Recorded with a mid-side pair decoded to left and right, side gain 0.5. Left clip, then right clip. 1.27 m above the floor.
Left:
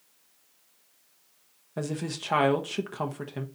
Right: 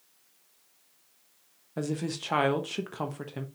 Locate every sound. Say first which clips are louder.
1.8 s a woman speaking: even; 5° left, 0.7 m